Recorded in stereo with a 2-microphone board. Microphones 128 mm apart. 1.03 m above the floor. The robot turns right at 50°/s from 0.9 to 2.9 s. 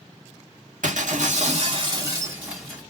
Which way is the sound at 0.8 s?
85° right.